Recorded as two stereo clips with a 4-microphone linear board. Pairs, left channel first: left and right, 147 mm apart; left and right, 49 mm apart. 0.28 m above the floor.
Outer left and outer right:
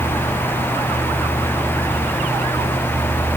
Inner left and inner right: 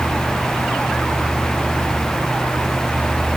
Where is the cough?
No cough in this recording.